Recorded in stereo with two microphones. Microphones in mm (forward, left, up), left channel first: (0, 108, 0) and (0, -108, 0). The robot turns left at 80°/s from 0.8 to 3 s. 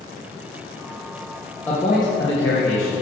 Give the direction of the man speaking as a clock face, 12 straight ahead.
6 o'clock.